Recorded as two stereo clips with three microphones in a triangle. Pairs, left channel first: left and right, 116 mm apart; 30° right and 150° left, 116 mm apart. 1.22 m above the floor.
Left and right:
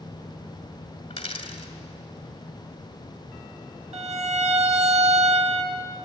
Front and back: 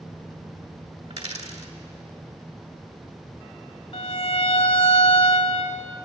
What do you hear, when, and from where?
1.1 s a dropped coin: 130° left, 2.5 m
3.9 s a violin: 70° right, 1.9 m